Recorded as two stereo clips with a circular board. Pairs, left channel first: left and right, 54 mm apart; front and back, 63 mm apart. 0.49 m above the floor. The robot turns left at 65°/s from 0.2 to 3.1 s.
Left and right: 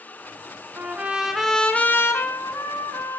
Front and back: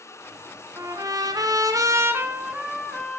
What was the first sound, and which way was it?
A trumpet, 140° right.